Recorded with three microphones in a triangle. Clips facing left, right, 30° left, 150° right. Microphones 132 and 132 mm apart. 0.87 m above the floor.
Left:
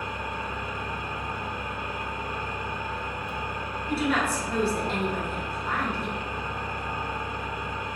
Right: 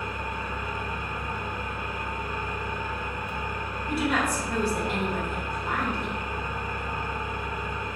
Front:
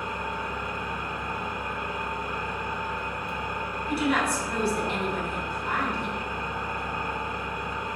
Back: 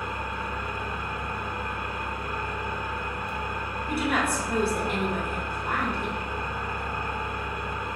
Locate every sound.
0.0 s an engine running: 120° left, 0.7 m
3.9 s a woman speaking: 160° right, 1.2 m